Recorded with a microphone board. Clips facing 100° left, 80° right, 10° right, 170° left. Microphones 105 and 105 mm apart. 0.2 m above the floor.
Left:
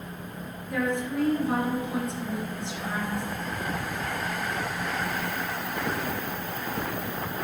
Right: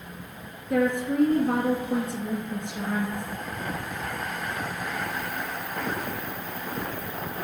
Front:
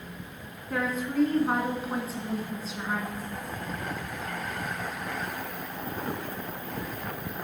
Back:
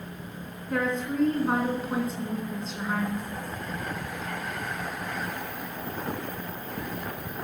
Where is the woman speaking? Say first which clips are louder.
Right 4 dB, back 1 dB; 95° right, 2 m.